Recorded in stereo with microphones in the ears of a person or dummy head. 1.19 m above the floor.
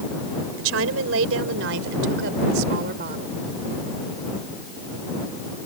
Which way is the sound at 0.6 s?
85° right.